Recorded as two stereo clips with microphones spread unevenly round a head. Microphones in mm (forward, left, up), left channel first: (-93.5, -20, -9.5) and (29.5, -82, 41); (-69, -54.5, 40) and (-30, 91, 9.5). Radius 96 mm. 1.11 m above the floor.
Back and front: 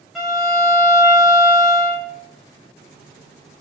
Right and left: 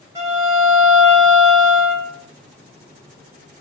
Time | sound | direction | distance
0.1 | a violin | 5° left | 0.6 m